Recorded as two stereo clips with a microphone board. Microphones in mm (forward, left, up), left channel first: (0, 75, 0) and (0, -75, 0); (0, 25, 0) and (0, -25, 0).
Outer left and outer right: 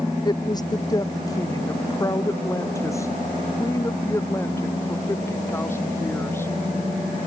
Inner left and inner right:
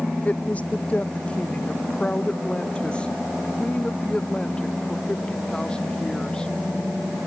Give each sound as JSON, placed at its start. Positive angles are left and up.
{"t": 0.2, "sound": "a woman speaking", "side_deg": 30}